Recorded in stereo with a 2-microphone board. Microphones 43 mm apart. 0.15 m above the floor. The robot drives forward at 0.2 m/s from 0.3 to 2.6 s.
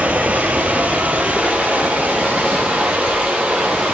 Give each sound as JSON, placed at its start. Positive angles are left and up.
{"t": 0.0, "sound": "running water", "side_deg": -35, "distance_m": 1.2}